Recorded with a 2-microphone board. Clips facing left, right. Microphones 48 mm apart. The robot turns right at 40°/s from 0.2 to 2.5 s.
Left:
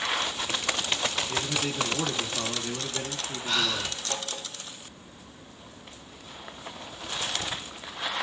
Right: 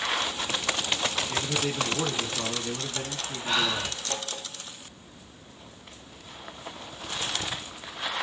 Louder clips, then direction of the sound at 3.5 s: Right 2 dB; 20° right (ahead or behind).